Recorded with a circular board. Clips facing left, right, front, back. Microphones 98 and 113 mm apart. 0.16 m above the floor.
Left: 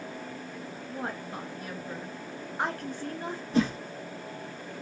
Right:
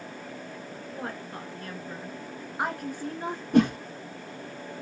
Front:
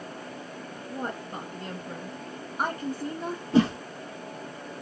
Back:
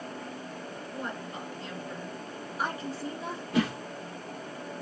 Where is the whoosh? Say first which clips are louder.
Right 5 dB, front 6 dB; 55° right, 0.8 m.